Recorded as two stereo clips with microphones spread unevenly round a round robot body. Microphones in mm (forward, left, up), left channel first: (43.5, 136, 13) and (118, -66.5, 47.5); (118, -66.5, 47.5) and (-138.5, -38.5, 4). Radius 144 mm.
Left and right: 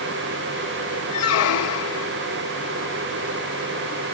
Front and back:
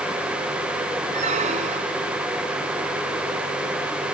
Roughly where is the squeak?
Left.